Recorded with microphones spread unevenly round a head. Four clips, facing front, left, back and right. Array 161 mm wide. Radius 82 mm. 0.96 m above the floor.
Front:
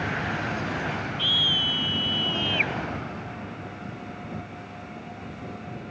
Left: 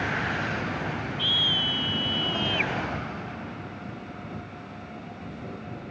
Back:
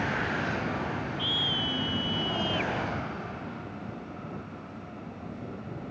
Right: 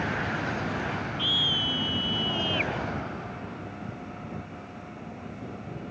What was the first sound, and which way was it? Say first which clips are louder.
A scream: left 1 dB, front 2 dB; 10° left.